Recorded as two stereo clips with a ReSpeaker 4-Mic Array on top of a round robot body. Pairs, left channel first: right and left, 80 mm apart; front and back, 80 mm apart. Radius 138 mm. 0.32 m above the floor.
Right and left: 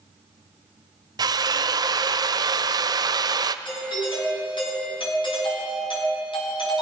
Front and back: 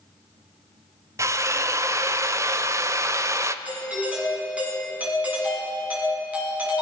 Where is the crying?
I don't hear crying.